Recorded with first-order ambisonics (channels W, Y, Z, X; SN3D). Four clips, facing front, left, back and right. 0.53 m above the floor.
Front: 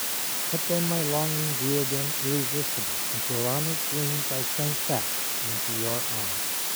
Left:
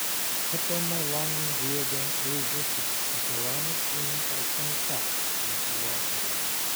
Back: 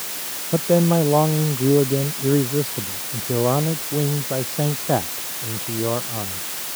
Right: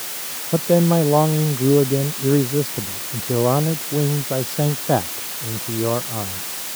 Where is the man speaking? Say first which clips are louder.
Right 17 dB, back 11 dB; 130° right; by 6.4 s 120° right.